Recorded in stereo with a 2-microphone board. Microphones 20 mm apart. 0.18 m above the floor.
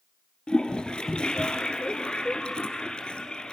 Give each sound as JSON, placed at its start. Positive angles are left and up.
{"t": 0.5, "sound": "a toilet flushing", "side_deg": 55, "distance_m": 2.5}